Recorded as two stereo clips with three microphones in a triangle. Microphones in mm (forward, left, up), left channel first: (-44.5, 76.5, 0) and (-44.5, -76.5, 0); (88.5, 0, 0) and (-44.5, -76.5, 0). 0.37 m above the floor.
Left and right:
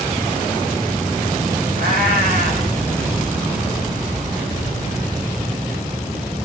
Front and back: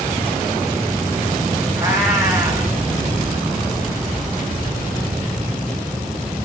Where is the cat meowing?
80° right, 3.5 m.